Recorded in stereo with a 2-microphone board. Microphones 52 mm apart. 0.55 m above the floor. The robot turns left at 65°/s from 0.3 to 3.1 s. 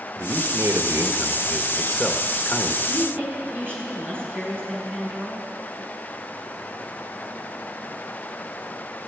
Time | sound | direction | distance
0.2 | a man speaking | 80° right | 1.5 m
2.9 | a woman speaking | 55° right (ahead or behind) | 7 m